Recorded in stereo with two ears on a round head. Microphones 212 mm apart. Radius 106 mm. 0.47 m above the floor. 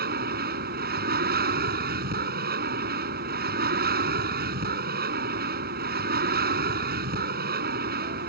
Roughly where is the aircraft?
Right.